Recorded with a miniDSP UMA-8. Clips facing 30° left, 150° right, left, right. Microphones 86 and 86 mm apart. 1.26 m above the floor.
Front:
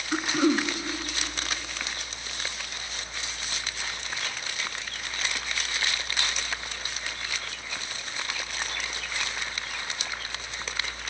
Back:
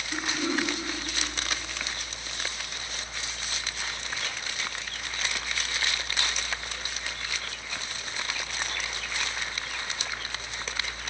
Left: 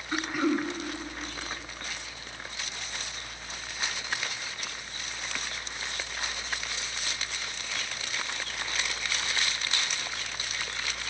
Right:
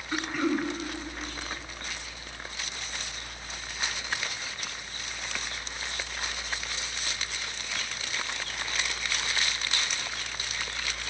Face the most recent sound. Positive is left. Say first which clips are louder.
# front 6 dB, left 1 dB
turn(degrees=10)